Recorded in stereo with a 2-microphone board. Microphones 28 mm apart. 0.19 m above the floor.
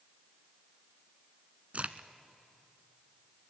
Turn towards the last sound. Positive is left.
turn(degrees=-50)  # may be behind; listen again after turning